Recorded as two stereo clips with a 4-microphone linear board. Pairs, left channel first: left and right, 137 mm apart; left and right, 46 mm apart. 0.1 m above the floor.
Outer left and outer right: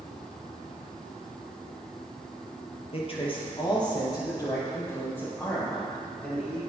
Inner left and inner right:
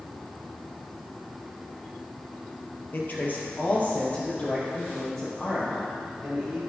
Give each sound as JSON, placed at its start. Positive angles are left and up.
{"t": 2.9, "sound": "a man speaking", "side_deg": 45, "distance_m": 1.9}